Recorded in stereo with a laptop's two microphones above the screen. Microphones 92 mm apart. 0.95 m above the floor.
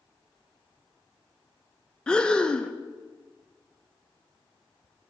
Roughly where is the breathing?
Centre.